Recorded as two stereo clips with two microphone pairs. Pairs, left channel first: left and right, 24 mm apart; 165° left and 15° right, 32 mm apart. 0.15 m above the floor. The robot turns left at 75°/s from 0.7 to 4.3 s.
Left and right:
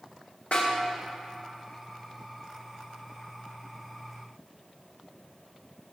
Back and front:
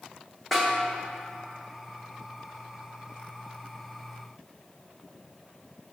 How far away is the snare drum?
About 6 m.